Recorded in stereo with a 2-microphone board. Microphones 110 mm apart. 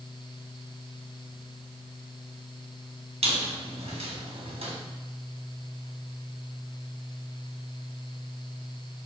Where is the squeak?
70° right (ahead or behind), 2.5 m.